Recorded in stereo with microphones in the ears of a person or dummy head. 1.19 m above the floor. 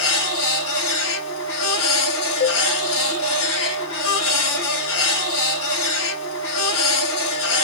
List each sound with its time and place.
0.0 s a machine running: 60° left (ahead or behind), 1.4 m
2.4 s a cowbell: 50° left (ahead or behind), 1.5 m